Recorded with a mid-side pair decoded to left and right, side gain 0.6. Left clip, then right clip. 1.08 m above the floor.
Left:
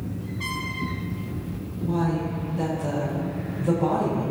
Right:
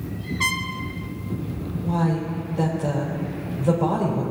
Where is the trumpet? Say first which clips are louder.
Right 7 dB; 55° right, 1.3 m.